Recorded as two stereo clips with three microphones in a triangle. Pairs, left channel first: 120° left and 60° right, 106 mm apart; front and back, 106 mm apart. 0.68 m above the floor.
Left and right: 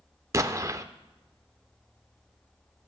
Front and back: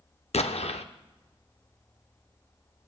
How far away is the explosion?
About 0.5 m.